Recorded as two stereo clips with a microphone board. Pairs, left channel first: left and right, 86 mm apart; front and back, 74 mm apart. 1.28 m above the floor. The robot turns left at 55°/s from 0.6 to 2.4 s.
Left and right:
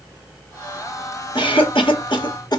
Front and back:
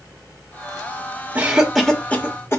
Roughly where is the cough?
Left.